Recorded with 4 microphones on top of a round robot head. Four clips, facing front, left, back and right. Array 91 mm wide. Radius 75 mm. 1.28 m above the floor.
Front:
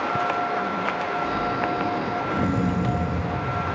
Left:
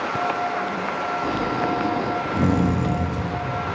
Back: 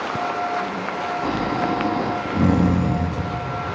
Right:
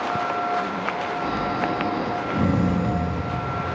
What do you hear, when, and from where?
1.2 s snoring: 155° left, 1.0 m